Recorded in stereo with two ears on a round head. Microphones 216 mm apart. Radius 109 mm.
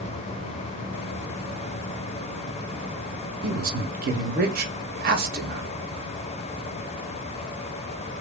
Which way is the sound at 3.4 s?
40° right (ahead or behind).